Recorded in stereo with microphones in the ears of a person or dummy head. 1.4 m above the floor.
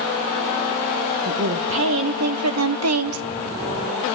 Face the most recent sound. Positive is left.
turn(degrees=-70)  # may be behind; listen again after turning